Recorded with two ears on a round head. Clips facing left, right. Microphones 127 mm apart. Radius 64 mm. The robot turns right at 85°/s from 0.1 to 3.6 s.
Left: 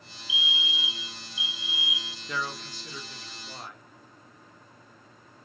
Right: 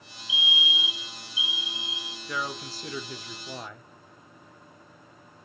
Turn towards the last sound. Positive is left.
turn(degrees=-70)